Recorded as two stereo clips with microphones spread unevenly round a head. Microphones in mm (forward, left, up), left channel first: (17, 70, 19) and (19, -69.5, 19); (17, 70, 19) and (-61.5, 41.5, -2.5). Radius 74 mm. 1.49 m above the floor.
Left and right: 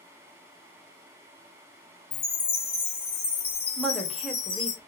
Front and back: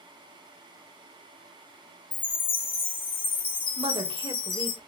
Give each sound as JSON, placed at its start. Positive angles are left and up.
{"t": 2.1, "sound": "a chime", "azimuth_deg": 40, "distance_m": 1.5}
{"t": 3.8, "sound": "a woman speaking", "azimuth_deg": 180, "distance_m": 1.3}